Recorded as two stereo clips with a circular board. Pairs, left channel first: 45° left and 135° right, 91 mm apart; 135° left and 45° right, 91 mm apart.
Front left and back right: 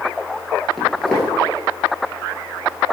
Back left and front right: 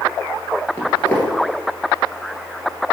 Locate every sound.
0.8 s footsteps: 125° left, 1.5 m